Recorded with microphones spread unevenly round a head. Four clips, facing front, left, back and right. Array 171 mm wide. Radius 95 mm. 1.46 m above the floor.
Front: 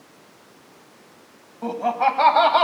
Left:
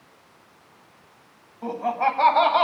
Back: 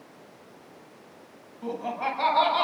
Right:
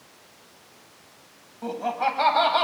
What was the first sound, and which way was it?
Laughter, 10° right.